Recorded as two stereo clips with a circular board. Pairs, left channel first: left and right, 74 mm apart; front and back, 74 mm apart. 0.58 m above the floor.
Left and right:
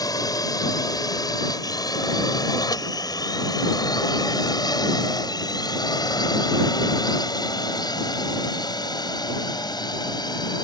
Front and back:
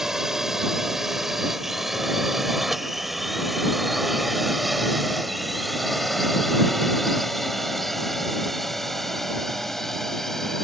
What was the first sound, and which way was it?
A drone, 95° left.